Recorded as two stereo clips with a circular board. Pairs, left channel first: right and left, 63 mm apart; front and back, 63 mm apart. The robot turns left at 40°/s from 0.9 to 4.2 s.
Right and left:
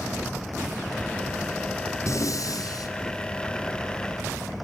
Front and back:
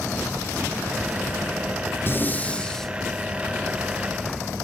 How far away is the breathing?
About 3.5 m.